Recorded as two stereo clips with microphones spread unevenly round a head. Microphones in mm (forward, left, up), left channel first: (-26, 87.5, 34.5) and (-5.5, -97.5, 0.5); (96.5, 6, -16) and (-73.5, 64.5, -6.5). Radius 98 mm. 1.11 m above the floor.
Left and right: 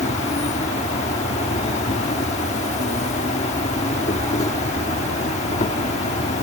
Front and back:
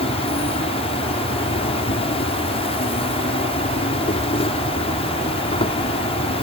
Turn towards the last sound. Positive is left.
turn(degrees=35)